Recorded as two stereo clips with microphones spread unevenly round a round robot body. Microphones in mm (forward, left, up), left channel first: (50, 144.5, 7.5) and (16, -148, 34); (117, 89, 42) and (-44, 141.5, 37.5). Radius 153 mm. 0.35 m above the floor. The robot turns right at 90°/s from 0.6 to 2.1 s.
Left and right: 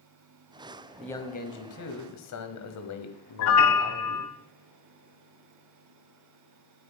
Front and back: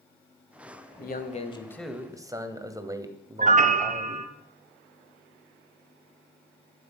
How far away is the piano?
About 1.1 m.